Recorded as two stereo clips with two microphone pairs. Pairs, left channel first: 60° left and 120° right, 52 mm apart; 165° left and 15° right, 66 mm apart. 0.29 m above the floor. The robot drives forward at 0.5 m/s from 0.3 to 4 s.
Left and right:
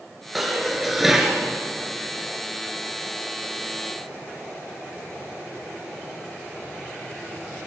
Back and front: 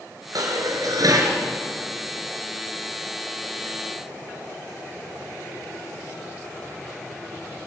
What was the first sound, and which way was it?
Dishes clattering, 30° right.